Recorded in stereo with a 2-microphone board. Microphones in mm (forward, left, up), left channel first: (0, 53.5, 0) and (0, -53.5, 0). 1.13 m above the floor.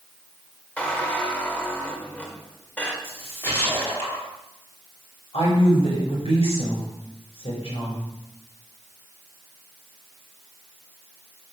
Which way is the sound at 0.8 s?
15° left (ahead or behind).